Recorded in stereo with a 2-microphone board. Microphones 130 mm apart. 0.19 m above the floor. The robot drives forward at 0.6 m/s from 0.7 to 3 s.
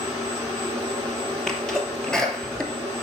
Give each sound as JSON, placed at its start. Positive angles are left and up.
{"t": 1.5, "sound": "a sneeze", "side_deg": 5, "distance_m": 3.5}